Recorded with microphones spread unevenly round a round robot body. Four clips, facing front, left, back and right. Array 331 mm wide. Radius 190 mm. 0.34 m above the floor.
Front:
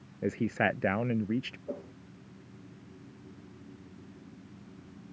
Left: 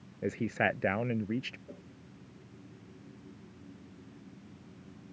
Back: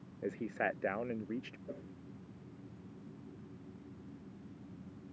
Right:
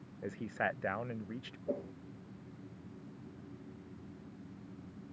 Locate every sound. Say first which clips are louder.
0.2 s a man speaking: left 6 dB, front 7 dB; 30° left; by 1.6 s 35° left
1.7 s a whoosh: right 12 dB, front 7 dB; 50° right